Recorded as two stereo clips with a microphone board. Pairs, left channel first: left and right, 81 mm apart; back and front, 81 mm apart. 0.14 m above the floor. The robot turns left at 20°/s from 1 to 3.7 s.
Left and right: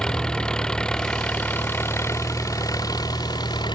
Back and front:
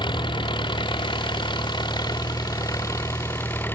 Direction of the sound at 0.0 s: 170° left.